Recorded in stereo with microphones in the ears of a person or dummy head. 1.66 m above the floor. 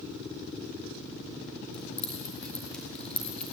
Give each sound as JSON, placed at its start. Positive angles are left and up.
{"t": 1.7, "sound": "keys jangling", "side_deg": 5, "distance_m": 2.5}